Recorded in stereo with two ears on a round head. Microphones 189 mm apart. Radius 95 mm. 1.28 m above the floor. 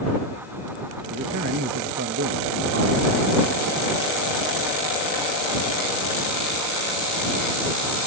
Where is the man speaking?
55° right (ahead or behind).